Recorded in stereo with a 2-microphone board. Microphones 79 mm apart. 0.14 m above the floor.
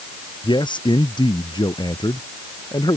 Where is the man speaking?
75° left (ahead or behind); by 3.0 s 60° left (ahead or behind).